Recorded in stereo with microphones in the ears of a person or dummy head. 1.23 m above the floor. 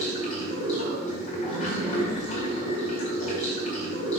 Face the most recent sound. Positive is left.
turn(degrees=35)  # may be behind; listen again after turning